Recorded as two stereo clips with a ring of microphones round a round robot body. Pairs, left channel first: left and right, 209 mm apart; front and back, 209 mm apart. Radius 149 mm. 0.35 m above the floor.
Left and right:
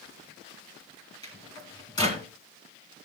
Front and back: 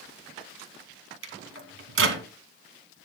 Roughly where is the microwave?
Behind.